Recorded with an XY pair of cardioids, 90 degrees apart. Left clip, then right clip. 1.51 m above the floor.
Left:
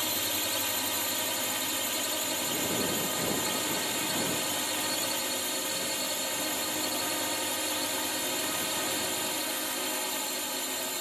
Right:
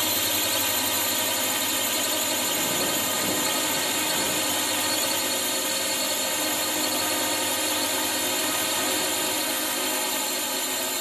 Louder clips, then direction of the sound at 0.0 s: Right 6 dB; 45° right.